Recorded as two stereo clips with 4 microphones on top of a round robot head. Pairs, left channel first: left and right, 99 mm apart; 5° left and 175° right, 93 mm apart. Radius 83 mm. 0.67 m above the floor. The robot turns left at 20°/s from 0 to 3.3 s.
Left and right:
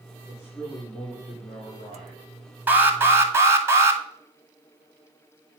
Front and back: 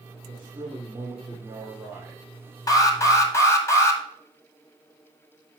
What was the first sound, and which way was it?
A man speaking, 155° left.